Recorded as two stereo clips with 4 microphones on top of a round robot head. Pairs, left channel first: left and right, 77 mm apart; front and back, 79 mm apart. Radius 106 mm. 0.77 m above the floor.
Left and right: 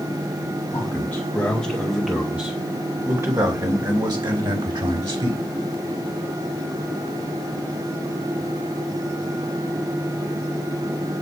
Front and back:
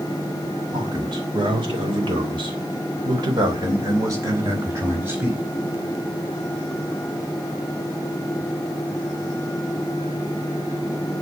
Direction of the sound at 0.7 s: 160° left.